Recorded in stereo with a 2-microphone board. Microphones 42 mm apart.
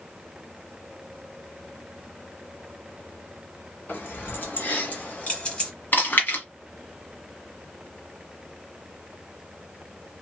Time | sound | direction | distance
3.9 | keys jangling | 55° left (ahead or behind) | 1.7 m
5.9 | chewing | 50° left (ahead or behind) | 1.3 m